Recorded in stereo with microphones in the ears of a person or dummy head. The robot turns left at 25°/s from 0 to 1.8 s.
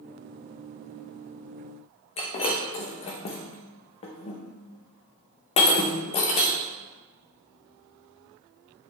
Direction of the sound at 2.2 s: 25° left (ahead or behind).